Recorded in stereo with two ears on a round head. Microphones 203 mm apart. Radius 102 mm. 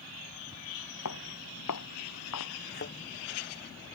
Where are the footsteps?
85° left; by 2.5 s 80° left.